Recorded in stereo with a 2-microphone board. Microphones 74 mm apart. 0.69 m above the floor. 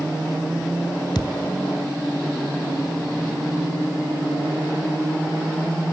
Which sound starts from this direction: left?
A thud, at 1.1 s.